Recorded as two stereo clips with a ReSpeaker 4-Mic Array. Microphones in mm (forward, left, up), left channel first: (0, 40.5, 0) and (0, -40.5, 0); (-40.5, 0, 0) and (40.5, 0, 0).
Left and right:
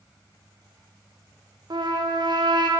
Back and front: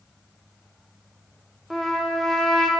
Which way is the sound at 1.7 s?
90° right.